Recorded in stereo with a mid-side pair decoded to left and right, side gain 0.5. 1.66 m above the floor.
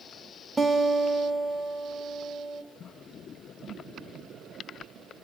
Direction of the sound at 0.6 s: 5° right.